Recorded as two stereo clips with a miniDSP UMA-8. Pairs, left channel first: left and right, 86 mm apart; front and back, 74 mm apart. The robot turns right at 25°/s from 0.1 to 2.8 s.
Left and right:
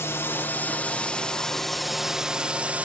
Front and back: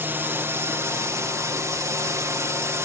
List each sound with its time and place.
0.0 s a drone: 135° left; by 2.9 s 155° right